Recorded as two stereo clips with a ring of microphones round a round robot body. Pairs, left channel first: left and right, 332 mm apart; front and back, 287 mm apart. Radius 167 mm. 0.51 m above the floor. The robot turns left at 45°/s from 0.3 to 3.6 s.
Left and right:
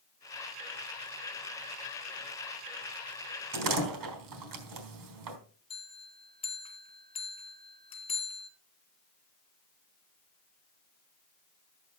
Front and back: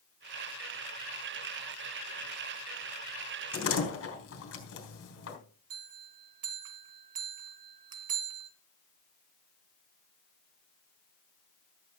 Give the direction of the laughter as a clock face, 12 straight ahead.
I don't hear laughter.